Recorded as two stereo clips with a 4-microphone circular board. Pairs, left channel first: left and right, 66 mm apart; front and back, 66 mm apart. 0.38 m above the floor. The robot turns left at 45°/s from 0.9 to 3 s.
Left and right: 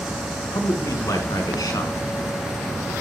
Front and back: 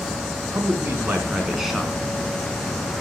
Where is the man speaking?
125° left, 4.5 m; by 1.9 s 80° left, 4.5 m.